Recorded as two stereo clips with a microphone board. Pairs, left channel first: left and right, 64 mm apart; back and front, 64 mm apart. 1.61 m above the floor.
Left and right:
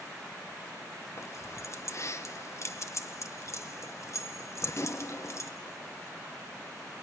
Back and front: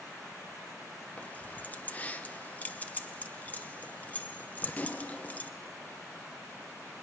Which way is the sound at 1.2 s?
120° left.